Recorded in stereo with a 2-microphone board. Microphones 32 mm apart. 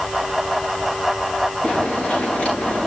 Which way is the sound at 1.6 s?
35° left (ahead or behind).